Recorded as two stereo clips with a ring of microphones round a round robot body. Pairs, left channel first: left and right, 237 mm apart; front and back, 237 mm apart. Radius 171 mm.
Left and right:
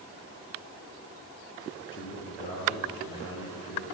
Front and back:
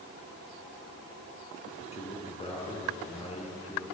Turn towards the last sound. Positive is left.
turn(degrees=65)